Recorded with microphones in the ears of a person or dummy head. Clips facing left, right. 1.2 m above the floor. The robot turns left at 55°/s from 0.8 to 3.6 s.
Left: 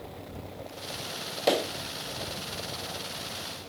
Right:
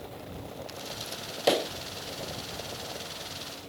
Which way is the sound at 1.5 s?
5° right (ahead or behind).